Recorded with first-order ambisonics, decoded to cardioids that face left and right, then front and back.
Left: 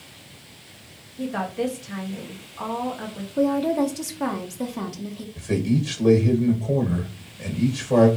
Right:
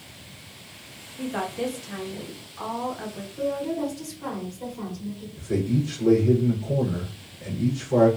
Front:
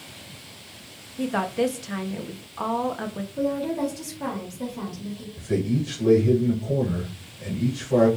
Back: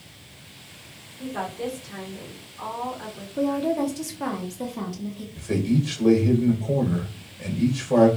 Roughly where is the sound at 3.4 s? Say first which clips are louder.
Left 6 dB, back 2 dB; left.